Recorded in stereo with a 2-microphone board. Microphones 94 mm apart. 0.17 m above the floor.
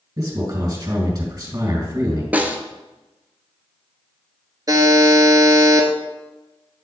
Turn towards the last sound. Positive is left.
turn(degrees=-40)  # may be behind; listen again after turning